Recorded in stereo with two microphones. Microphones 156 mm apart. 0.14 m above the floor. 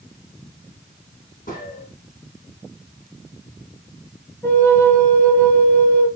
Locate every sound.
1.5 s a gunshot: 60° left (ahead or behind), 4 m
4.4 s a flute: 15° left (ahead or behind), 2 m